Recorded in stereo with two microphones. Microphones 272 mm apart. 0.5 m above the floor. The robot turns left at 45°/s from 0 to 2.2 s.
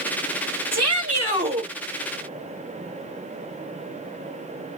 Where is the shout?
105° right, 2 m; by 1.7 s 150° right, 2 m.